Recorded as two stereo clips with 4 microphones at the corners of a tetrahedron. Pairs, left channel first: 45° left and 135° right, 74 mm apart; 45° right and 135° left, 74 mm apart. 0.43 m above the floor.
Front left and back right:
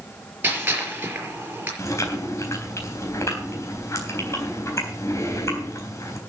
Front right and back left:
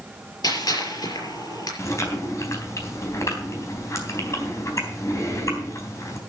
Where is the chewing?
Straight ahead, 3.5 m.